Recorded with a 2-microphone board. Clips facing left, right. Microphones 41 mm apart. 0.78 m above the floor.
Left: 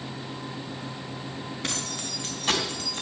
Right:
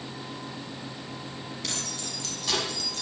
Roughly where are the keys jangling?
Left.